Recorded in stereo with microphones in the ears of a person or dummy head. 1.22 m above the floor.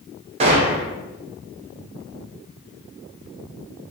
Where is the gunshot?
30° right (ahead or behind), 0.7 m.